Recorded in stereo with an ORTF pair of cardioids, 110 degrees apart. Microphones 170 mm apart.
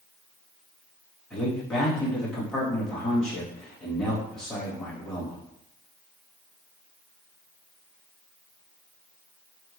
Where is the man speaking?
5° left, 1.8 m.